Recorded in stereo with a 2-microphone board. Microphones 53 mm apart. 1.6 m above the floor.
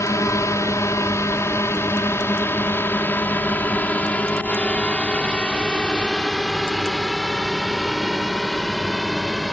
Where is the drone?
75° left (ahead or behind); by 9.5 s centre (ahead or behind).